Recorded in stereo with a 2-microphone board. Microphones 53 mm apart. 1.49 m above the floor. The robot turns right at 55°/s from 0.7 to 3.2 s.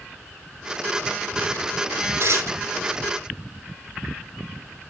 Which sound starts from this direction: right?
Tearing paper, at 2.2 s.